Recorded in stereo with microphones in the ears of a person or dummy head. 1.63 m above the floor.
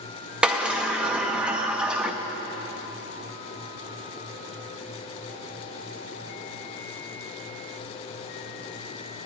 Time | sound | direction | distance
0.4 | a sliding door | 10° right (ahead or behind) | 0.6 m